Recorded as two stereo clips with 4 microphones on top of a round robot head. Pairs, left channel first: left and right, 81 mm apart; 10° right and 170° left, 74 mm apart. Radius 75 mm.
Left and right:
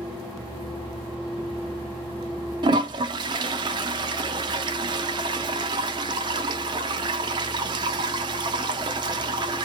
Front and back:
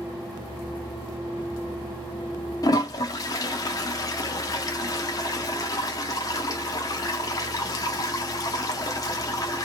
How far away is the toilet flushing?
About 0.5 m.